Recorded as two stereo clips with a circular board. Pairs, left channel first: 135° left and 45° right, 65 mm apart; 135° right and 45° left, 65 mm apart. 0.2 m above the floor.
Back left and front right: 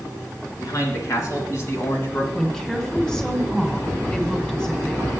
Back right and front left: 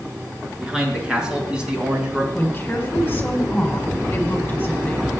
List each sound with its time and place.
0.6 s a man speaking: 120° left, 3.5 m; by 2.2 s 105° left, 1.8 m
2.3 s a woman speaking: 155° right, 1.7 m